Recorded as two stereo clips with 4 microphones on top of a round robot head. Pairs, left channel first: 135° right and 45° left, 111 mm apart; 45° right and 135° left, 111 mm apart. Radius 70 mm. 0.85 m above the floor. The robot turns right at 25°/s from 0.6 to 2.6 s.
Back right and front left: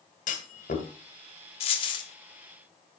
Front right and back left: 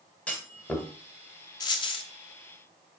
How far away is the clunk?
About 2.0 m.